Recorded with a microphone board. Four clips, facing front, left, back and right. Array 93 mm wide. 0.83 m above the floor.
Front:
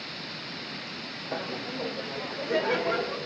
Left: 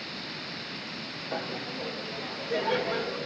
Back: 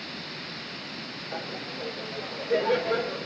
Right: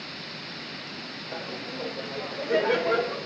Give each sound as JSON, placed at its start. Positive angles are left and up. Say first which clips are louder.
{"t": 1.3, "sound": "laughter", "louder": "left 1 dB, front 3 dB", "azimuth_deg": 25, "distance_m": 1.2}